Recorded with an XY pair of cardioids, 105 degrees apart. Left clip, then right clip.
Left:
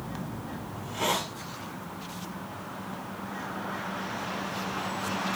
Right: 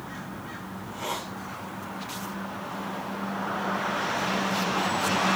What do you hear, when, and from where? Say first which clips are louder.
0.7 s a hiss: left 5 dB; 65° left, 1.3 m